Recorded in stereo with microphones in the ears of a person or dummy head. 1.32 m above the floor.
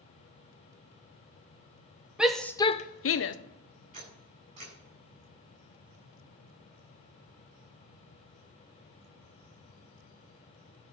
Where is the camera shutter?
40° right (ahead or behind), 7.5 m.